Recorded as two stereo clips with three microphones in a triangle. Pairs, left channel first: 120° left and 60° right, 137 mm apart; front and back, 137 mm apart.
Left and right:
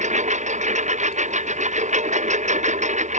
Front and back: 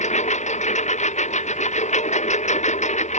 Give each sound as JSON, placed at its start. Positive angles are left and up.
{"t": 0.0, "sound": "a lawn mower", "azimuth_deg": -30}